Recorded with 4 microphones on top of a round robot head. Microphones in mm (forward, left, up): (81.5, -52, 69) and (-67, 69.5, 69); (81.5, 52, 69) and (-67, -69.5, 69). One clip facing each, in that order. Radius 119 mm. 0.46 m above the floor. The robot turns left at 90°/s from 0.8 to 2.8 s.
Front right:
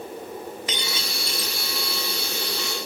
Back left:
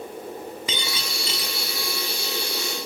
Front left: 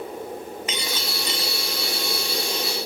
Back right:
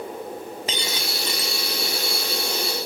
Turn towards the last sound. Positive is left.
turn(degrees=-20)